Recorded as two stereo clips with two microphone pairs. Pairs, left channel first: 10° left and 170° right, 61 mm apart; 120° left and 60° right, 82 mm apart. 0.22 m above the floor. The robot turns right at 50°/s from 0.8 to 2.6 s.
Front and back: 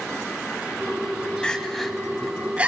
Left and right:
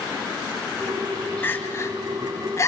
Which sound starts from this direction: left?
Crying, at 1.4 s.